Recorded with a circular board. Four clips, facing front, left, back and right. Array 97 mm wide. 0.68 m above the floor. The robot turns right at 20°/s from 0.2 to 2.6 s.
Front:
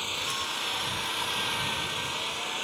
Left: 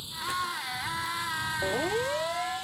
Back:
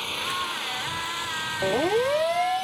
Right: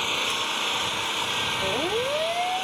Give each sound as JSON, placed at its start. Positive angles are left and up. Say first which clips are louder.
{"t": 0.0, "sound": "an engine running", "louder": "right 4 dB, back 4 dB", "azimuth_deg": -100}
{"t": 1.6, "sound": "a siren", "louder": "right 2 dB, back 13 dB", "azimuth_deg": -175}